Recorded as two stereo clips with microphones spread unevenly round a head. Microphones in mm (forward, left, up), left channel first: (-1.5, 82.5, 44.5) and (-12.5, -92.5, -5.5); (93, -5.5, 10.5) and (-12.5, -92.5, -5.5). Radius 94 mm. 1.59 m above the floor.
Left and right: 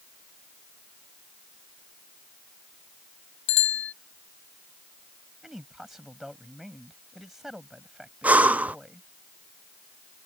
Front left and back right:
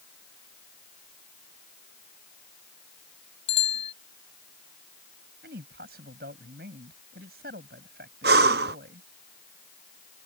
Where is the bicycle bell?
100° left.